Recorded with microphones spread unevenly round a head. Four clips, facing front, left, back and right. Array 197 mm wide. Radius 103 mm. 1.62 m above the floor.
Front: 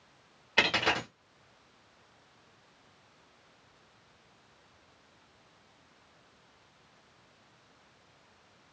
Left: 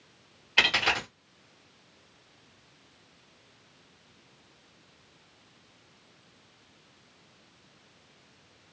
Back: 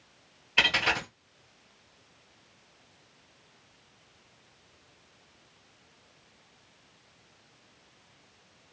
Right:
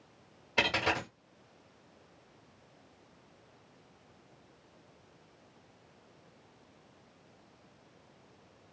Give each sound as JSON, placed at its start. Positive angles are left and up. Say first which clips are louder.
{"t": 0.6, "sound": "a dropped coin", "louder": "left 2 dB, even", "azimuth_deg": -25, "distance_m": 1.4}